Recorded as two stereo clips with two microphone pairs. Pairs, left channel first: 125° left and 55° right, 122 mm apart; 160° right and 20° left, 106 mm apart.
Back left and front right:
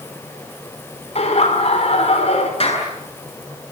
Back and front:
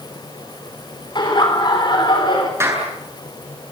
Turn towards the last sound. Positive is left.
turn(degrees=85)